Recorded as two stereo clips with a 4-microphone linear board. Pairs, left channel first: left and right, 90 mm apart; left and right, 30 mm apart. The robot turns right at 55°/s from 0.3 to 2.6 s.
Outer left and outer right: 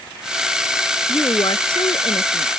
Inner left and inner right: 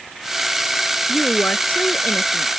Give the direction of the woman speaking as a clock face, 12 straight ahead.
11 o'clock.